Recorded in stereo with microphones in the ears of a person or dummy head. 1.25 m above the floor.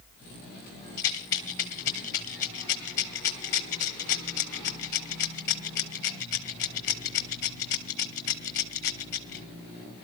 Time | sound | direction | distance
1.0 | a rattle | 20° left (ahead or behind) | 1.2 m